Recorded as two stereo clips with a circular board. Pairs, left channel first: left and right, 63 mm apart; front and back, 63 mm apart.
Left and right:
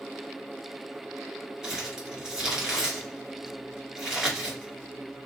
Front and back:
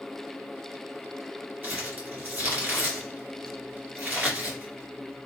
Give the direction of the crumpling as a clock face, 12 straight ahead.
5 o'clock.